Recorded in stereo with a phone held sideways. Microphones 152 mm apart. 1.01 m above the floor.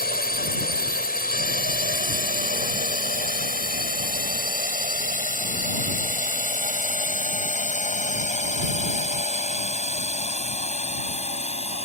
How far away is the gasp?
No gasp in this recording.